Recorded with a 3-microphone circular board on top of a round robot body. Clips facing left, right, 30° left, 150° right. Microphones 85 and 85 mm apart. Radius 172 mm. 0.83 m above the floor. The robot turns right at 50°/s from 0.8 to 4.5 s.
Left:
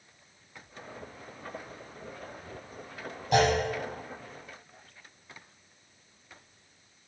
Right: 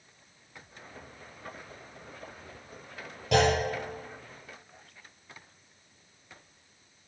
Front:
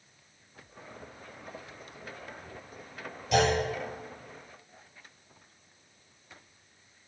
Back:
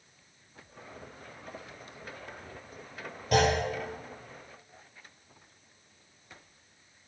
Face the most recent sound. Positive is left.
turn(degrees=-45)